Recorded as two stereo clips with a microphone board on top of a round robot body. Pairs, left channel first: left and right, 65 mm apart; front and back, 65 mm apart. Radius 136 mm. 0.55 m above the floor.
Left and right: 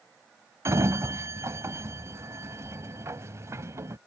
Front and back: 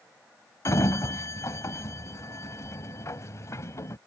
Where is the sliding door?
45° right.